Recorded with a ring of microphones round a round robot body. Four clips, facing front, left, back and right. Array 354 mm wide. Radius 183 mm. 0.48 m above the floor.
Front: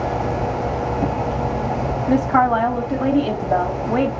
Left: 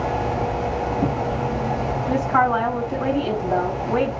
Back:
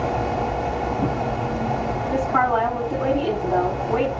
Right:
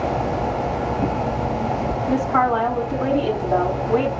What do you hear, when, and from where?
2.1 s a woman speaking: 5° left, 5 m